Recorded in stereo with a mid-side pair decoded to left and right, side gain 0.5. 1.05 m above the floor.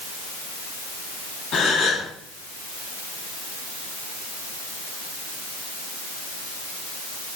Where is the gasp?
65° left, 1.2 m.